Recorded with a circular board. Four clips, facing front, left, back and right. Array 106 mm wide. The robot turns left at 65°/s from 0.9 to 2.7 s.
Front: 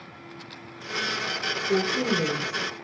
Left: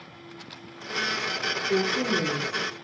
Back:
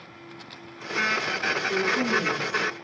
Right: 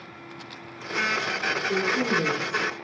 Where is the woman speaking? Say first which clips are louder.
Left 1 dB, front 2 dB; 20° right, 4 m; by 2.7 s 90° right, 4 m.